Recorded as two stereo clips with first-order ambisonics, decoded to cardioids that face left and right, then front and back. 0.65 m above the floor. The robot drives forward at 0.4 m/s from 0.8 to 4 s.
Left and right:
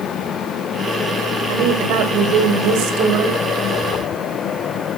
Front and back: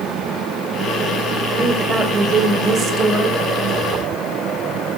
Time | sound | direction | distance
1.5 | a woman speaking | 105° right | 2.5 m